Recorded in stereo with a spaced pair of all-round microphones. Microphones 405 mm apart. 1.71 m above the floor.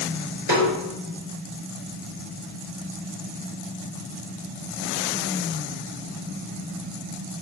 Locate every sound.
0.5 s a snare drum: 70° right (ahead or behind), 4 m